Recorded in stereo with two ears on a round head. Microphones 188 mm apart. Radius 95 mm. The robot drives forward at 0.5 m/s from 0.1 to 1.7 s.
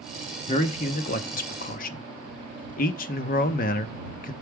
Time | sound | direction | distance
0.5 | a man speaking | 30° left (ahead or behind) | 0.9 m